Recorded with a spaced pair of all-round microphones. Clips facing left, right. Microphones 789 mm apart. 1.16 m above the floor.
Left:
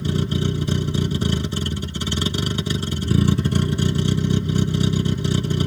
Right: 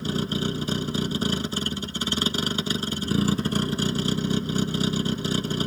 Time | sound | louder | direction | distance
0.0 | a vehicle | left 3 dB | 55° left (ahead or behind) | ?